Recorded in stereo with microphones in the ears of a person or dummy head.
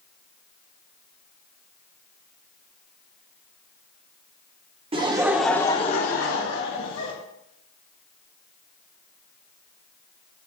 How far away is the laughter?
About 0.7 m.